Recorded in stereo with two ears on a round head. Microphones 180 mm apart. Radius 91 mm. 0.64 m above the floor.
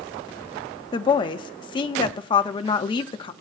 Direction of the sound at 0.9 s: 25° left (ahead or behind).